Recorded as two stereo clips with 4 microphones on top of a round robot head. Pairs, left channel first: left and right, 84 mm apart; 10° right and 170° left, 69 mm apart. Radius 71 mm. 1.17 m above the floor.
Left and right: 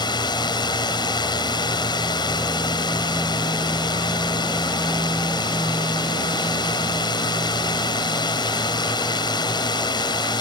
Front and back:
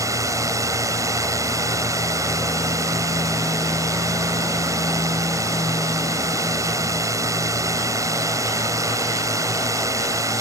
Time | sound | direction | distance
0.0 | a drone | 130° left | ?